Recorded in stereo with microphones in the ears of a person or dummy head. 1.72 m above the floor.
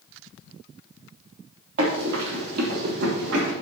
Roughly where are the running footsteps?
Right.